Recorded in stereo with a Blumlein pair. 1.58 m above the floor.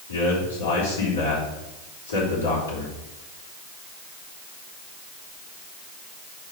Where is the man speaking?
65° left, 3.5 m.